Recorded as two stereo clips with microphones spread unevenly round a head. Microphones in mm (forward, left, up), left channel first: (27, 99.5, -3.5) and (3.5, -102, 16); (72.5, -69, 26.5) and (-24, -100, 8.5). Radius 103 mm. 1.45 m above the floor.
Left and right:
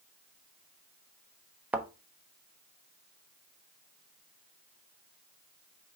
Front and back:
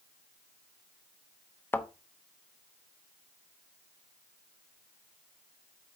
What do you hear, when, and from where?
1.7 s a thud: 20° right, 0.9 m